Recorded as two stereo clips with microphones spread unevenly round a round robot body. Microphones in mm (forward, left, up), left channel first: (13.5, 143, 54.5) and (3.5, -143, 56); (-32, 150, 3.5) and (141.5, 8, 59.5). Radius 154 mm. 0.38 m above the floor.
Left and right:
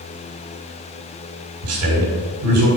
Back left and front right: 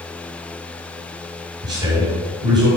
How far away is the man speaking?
About 3 m.